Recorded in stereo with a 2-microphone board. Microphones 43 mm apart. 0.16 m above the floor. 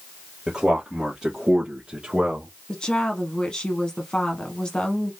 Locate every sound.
0.5 s a man speaking: 15° right (ahead or behind), 2.5 m; by 2.5 s 25° right (ahead or behind), 1.4 m
2.7 s a woman speaking: 20° left (ahead or behind), 1.1 m